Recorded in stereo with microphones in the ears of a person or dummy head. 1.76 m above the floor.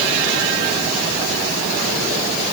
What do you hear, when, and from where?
Only background noise.